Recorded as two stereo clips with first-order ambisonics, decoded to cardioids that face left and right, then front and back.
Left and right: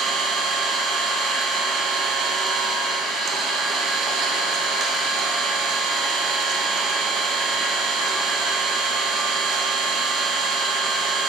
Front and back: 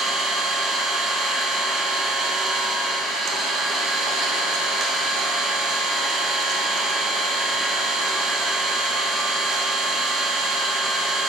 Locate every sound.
0.0 s an engine running: 140° right, 1.1 m